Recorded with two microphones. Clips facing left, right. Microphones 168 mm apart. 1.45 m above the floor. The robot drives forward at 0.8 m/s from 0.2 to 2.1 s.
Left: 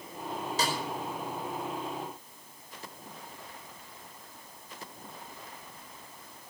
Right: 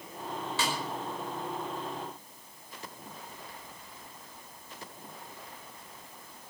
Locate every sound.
0.6 s a snare drum: 35° left (ahead or behind), 5 m; by 0.8 s 40° left (ahead or behind), 5 m